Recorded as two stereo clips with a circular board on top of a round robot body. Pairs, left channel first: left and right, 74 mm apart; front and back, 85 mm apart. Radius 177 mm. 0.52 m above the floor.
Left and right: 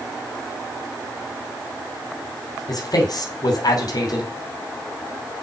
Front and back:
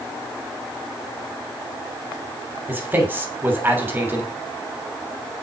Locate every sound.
2.7 s a man speaking: 115° left, 2.5 m